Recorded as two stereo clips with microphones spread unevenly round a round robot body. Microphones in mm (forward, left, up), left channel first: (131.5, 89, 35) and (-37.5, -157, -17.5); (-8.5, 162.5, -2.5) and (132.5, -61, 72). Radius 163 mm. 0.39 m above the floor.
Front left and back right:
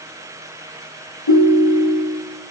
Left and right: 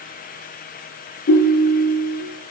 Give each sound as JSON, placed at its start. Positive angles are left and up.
{"t": 1.3, "sound": "a ringtone", "azimuth_deg": 75, "distance_m": 6.0}